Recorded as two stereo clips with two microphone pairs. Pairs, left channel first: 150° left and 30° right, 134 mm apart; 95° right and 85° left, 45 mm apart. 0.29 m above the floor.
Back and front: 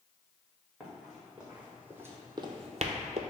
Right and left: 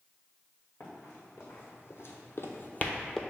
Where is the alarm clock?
I don't hear an alarm clock.